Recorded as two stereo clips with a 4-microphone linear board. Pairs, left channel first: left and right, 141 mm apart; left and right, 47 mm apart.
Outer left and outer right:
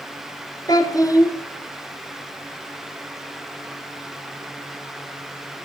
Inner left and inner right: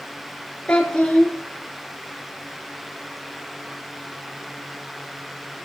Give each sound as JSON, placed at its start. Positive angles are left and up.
{"t": 0.7, "sound": "a child speaking", "side_deg": 25, "distance_m": 0.8}